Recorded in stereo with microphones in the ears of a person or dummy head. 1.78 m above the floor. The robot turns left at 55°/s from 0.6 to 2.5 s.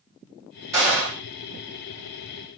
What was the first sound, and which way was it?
A gunshot, 20° right (ahead or behind).